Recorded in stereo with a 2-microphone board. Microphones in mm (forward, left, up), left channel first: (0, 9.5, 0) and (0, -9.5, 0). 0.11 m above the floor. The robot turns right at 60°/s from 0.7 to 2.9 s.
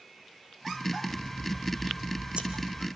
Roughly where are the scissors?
Behind.